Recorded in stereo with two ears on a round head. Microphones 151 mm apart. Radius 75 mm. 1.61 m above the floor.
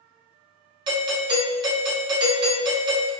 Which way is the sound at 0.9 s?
25° right (ahead or behind).